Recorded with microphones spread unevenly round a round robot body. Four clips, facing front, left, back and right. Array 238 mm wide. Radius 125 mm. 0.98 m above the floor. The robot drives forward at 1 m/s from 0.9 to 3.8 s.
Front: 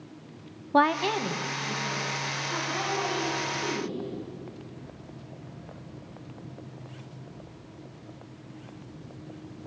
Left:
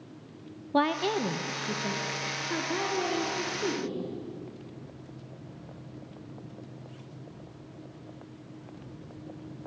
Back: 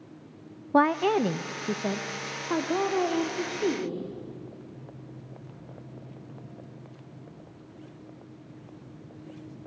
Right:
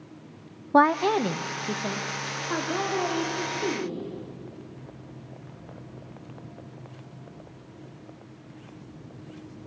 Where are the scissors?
I don't hear scissors.